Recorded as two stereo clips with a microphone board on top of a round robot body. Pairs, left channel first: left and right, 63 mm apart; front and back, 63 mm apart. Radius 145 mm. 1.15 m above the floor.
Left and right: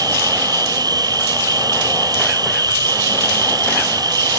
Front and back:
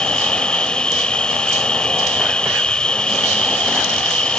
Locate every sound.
0.0 s an insect: 75° right